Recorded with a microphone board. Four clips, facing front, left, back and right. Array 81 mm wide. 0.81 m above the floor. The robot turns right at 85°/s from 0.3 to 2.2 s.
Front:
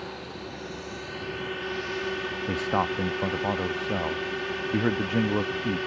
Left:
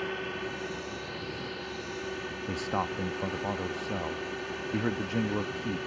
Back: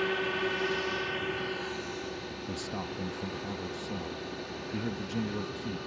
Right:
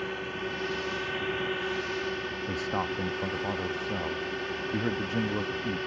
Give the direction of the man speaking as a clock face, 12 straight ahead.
12 o'clock.